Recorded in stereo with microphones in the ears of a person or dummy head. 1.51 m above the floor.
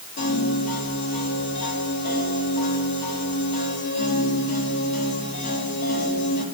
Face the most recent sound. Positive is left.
turn(degrees=50)  # may be behind; listen again after turning